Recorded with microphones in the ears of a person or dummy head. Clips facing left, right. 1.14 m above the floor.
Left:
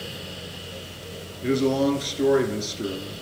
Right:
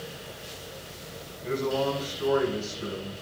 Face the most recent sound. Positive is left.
turn(degrees=85)